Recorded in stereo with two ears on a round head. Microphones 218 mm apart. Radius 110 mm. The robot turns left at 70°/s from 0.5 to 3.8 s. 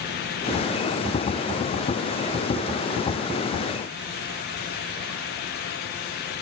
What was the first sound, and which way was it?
Only background noise.